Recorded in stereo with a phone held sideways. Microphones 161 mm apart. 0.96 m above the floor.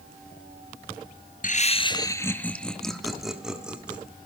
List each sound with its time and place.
1.4 s laughter: 60° left (ahead or behind), 0.6 m; by 4.0 s 5° right (ahead or behind), 2.5 m